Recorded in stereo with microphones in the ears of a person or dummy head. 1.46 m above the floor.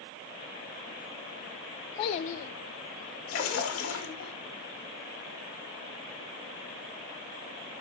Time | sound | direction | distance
2.0 | a child speaking | 30° left (ahead or behind) | 0.6 m
3.3 | a splash | 75° left (ahead or behind) | 2 m